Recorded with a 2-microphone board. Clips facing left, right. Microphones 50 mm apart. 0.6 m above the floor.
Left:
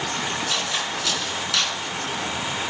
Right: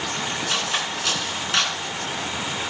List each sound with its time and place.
0.5 s cutlery clinking: 35° right (ahead or behind), 3.5 m